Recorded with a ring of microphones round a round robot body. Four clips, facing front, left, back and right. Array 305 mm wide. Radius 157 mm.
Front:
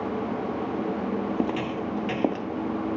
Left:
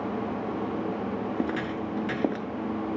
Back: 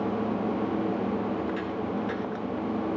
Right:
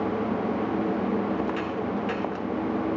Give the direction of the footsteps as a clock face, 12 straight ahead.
11 o'clock.